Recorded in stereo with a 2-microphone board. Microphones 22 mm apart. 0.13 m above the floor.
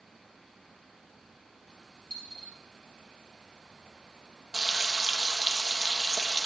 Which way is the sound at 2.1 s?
45° left (ahead or behind).